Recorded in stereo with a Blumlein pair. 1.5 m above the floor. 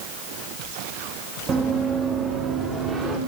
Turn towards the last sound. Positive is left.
turn(degrees=-15)